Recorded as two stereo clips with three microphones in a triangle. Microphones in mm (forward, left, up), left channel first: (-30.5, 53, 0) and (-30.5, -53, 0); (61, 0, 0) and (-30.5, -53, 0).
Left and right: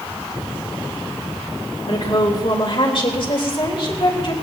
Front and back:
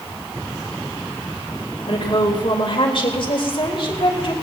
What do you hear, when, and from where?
1.9 s a woman speaking: 60° left, 3.5 m